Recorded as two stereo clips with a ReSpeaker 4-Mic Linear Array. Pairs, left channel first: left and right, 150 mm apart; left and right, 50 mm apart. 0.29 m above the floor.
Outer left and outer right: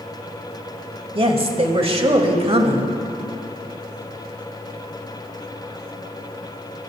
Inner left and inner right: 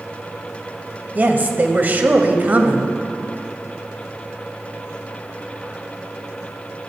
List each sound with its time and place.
1.1 s a woman speaking: 35° right (ahead or behind), 1.1 m